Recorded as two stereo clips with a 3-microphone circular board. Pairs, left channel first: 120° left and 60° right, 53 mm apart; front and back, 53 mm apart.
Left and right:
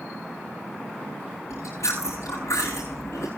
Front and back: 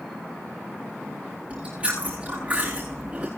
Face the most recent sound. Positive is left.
turn(degrees=115)